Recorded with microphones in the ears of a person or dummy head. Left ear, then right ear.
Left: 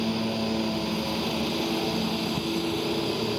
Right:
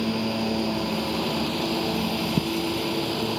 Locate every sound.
0.0 s a lawn mower: 5° left (ahead or behind); by 3.4 s 5° right (ahead or behind)